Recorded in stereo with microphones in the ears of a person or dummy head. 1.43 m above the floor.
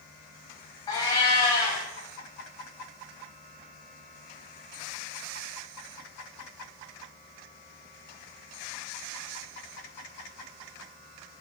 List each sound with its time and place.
0.9 s a cat meowing: 15° left (ahead or behind), 1.3 m